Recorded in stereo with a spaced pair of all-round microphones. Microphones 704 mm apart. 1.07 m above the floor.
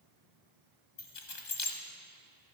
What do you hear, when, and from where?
1.0 s keys jangling: 80° left, 1.1 m